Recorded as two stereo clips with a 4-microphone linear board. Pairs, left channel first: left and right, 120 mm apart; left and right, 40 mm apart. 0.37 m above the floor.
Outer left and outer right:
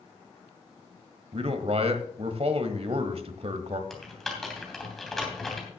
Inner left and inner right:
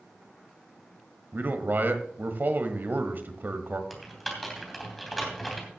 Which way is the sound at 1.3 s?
60° right (ahead or behind).